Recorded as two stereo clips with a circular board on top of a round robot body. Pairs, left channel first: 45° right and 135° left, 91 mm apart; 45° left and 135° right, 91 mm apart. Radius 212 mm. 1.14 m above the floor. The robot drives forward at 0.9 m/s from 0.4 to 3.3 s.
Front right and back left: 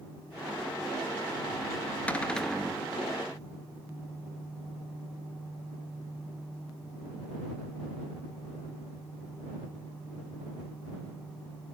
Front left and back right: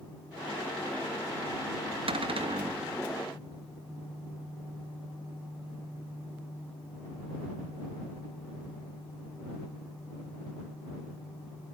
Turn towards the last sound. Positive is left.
turn(degrees=-140)